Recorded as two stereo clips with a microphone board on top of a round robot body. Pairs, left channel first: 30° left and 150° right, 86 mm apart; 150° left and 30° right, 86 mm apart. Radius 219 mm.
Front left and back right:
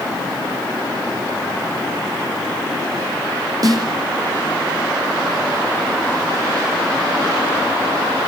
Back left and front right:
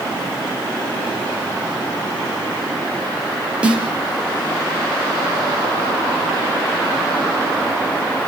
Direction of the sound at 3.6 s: 105° right.